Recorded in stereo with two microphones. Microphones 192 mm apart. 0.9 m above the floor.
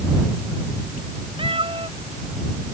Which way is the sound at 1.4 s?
25° right (ahead or behind).